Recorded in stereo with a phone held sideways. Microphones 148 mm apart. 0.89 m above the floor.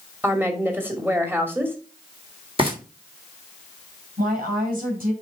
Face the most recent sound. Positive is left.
turn(degrees=-75)  # may be behind; listen again after turning